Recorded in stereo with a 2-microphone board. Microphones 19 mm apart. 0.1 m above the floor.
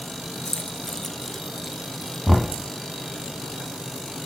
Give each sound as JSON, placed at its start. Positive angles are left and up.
{"t": 0.5, "sound": "keys jangling", "side_deg": 30, "distance_m": 1.1}
{"t": 2.3, "sound": "knocking", "side_deg": -10, "distance_m": 2.5}